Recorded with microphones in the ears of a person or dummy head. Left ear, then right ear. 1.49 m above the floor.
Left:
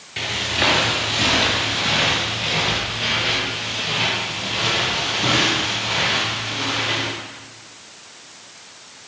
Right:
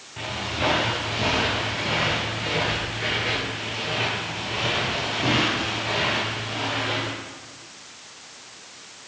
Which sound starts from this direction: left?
Footsteps, at 0.2 s.